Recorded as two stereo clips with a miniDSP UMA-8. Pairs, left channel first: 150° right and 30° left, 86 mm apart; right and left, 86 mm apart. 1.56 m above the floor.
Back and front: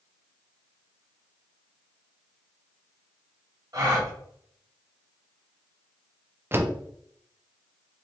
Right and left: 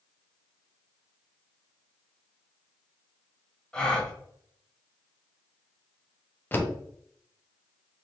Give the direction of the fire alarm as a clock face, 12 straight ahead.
I don't hear a fire alarm.